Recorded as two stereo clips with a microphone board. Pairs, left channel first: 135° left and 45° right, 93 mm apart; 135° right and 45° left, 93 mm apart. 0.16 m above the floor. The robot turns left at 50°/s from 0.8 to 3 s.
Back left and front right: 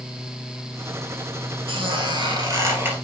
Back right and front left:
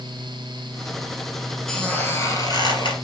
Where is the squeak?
50° right, 2.5 m; by 3.0 s 115° right, 2.5 m.